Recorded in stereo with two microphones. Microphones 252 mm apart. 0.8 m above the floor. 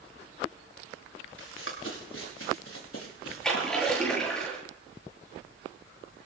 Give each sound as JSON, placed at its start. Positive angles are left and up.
{"t": 1.4, "sound": "running footsteps", "side_deg": 50, "distance_m": 5.0}
{"t": 3.4, "sound": "a splash", "side_deg": 5, "distance_m": 7.5}